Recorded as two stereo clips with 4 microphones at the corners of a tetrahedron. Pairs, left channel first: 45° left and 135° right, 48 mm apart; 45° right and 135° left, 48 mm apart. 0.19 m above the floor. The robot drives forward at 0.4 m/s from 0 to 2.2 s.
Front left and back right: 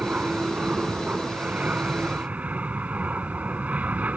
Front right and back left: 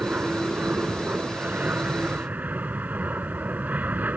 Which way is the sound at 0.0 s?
175° left.